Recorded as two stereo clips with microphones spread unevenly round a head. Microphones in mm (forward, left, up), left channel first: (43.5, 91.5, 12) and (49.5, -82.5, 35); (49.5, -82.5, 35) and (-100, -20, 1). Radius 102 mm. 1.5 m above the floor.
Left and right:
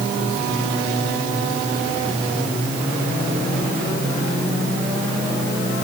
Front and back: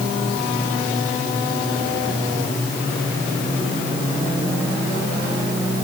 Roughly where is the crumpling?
I don't hear crumpling.